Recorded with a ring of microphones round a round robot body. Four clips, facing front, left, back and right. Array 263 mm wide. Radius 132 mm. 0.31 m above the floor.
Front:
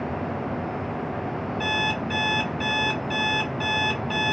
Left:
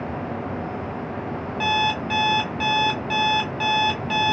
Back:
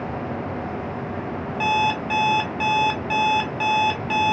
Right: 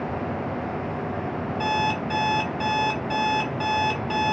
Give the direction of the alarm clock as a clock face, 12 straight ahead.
7 o'clock.